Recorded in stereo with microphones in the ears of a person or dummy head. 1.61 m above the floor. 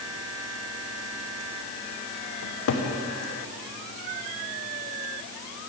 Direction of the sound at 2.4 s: 70° left (ahead or behind).